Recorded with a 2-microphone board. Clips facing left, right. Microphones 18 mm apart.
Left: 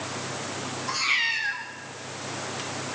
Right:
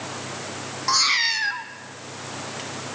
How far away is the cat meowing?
About 1.5 m.